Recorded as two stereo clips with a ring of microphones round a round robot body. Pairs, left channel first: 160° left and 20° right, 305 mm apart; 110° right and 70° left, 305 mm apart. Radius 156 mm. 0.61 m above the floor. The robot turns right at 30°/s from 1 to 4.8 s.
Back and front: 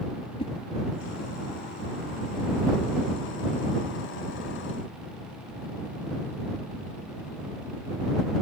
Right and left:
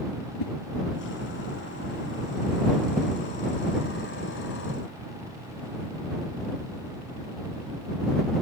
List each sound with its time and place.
0.4 s a whoosh: 130° right